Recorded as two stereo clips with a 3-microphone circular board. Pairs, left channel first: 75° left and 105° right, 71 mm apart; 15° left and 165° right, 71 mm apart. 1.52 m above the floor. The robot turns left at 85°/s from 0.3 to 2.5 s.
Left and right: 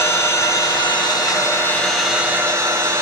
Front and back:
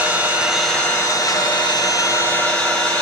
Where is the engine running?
130° left, 1.2 m; by 3.0 s 55° right, 1.2 m.